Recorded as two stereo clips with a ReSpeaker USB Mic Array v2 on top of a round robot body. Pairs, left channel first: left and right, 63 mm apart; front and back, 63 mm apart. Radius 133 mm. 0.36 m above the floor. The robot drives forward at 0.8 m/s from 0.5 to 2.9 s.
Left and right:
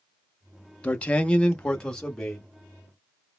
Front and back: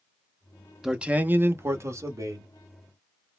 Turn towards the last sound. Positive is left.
turn(degrees=170)